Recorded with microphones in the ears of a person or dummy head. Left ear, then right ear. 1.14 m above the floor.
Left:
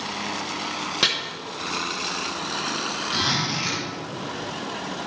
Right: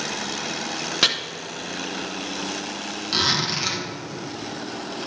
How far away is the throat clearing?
I don't hear throat clearing.